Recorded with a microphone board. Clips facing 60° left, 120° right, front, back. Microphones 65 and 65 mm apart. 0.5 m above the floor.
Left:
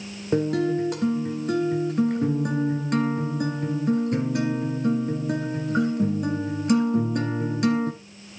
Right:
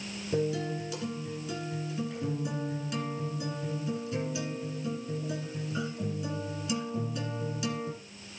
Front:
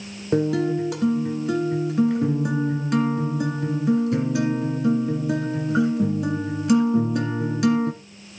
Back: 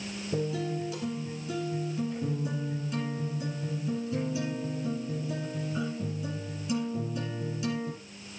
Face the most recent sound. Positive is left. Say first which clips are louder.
# left 8 dB, front 11 dB
turn(degrees=25)